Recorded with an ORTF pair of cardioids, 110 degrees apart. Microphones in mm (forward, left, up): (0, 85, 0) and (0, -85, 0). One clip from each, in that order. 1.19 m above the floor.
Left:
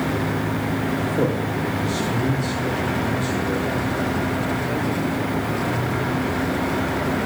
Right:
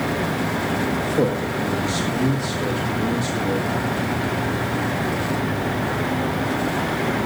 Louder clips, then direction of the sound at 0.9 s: Even; 35° right.